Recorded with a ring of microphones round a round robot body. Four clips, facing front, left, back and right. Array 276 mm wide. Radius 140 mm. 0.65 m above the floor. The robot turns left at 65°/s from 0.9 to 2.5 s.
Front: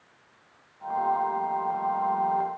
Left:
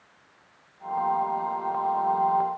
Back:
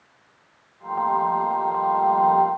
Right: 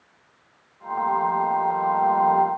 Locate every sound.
Only background noise.